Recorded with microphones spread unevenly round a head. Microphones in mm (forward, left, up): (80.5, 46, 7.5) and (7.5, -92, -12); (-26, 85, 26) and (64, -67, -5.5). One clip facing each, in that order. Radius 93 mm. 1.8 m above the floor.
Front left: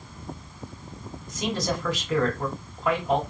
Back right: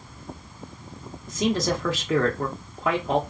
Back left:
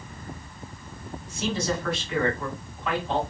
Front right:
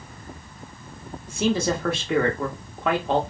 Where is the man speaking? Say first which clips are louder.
Back right 4 dB, front right 5 dB; 110° right, 0.8 m.